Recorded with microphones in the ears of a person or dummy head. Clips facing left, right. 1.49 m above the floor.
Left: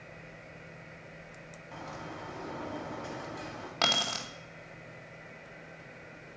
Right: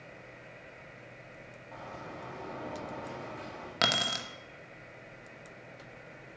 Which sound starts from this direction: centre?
A bird, at 1.7 s.